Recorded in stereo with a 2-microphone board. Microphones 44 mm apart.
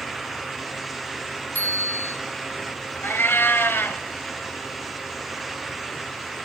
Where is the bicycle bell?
50° left (ahead or behind), 4 m.